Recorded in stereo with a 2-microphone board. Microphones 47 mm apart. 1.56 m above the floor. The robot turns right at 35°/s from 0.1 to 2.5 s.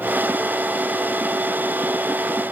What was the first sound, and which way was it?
Only background noise.